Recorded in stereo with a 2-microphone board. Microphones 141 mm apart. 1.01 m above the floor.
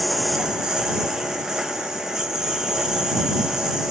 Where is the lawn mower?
5° right (ahead or behind).